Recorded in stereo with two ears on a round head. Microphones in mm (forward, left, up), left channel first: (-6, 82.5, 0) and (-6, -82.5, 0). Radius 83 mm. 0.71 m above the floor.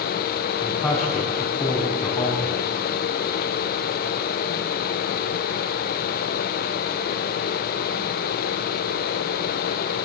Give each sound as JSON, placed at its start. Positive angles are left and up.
{"t": 0.6, "sound": "a man speaking", "side_deg": 15, "distance_m": 6.0}